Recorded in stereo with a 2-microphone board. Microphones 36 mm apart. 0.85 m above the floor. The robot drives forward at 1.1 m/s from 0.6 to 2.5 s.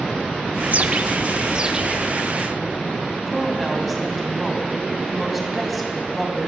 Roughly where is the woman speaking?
Centre.